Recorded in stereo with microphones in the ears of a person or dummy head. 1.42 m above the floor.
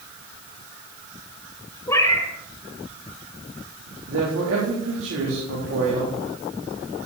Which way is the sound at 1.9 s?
20° left (ahead or behind).